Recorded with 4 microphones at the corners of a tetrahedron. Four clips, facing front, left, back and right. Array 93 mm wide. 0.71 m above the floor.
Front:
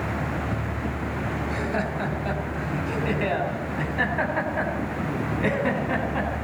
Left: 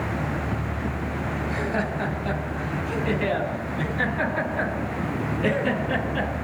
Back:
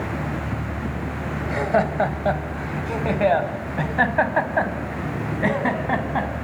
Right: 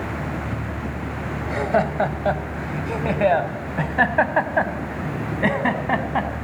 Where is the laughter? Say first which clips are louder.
Right 8 dB, back 10 dB; 135° right, 3.5 m; by 6.3 s 120° right, 5.5 m.